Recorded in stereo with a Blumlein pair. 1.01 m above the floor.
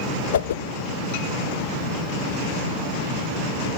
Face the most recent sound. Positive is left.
turn(degrees=65)